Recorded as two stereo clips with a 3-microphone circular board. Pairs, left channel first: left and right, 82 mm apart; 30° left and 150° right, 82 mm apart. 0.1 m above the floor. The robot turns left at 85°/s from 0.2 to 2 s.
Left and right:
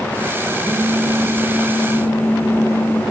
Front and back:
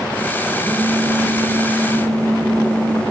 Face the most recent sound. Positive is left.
turn(degrees=170)